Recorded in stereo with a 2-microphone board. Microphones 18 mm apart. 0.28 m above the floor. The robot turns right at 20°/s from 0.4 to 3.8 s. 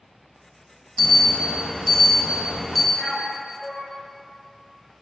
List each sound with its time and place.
1.0 s an alarm: 120° left, 0.7 m; by 2.8 s 155° left, 0.7 m
2.9 s a man speaking: 20° left (ahead or behind), 1.6 m; by 3.9 s 25° left (ahead or behind), 1.6 m